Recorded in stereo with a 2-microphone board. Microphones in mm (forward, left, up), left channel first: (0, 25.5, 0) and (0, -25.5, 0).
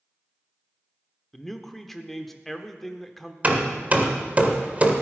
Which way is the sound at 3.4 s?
35° right (ahead or behind).